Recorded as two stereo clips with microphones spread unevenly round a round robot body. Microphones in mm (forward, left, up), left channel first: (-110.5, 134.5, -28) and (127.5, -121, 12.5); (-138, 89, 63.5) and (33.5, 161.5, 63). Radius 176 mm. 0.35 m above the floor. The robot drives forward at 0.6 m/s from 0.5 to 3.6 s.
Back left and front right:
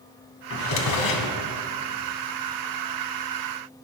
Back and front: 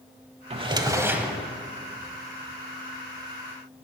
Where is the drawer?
80° left, 1.0 m; by 1.4 s 110° left, 1.1 m.